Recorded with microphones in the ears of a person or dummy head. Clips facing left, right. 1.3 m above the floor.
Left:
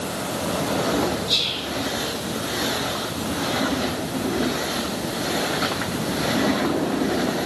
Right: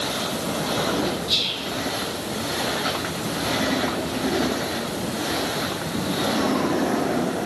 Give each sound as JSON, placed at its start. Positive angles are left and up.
{"t": 1.3, "sound": "whispering", "side_deg": -5, "distance_m": 1.4}